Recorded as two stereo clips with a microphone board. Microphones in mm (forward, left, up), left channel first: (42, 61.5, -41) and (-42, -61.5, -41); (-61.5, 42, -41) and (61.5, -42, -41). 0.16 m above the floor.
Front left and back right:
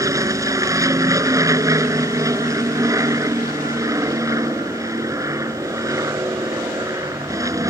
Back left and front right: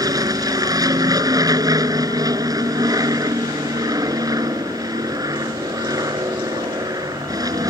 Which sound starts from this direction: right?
An aircraft, at 0.0 s.